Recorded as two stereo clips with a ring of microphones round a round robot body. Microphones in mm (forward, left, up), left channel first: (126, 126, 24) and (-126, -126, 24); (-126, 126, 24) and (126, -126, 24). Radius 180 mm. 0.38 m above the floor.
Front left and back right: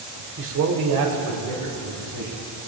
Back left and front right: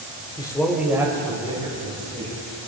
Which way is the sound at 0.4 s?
160° right.